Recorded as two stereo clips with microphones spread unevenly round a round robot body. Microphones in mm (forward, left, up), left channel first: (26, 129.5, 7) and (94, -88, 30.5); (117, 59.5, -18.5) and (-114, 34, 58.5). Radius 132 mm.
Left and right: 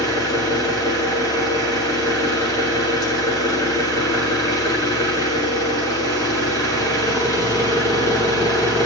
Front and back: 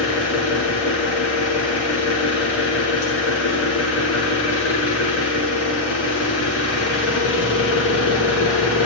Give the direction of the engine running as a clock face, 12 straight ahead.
11 o'clock.